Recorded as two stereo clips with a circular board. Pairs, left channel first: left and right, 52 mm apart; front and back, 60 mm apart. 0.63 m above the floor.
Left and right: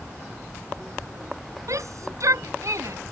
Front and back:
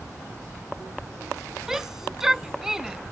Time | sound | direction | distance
1.7 | a shout | 100° right | ?